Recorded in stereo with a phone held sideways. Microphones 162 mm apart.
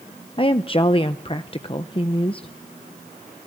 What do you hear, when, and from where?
0.4 s a woman speaking: 35° left (ahead or behind), 0.6 m